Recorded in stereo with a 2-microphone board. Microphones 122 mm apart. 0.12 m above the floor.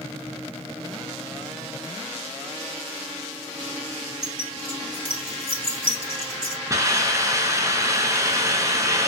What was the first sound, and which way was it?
Keys jangling, 45° right (ahead or behind).